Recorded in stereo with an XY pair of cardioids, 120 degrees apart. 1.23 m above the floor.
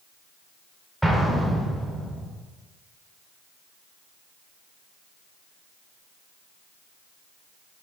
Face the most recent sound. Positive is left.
turn(degrees=-5)